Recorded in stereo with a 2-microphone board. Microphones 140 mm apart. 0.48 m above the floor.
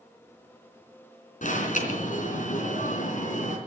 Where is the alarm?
65° left (ahead or behind), 3.5 m.